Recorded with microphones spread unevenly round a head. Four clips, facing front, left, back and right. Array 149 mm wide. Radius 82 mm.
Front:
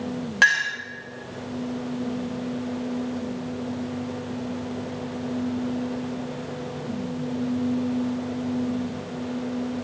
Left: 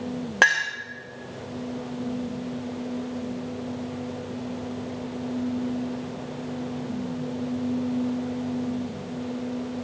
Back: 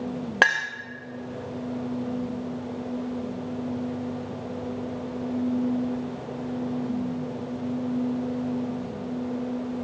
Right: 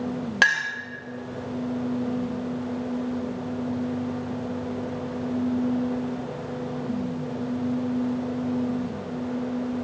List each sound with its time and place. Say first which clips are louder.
0.4 s a clink: left 2 dB, front 2 dB; 150° left, 1.5 m